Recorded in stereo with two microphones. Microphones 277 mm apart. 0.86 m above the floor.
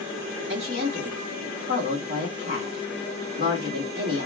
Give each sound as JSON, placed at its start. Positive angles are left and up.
{"t": 0.5, "sound": "a woman speaking", "side_deg": -25, "distance_m": 1.9}